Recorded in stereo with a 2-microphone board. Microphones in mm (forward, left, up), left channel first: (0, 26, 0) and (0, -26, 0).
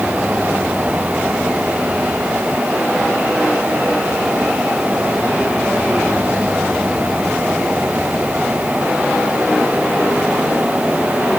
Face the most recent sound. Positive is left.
No sound to turn to.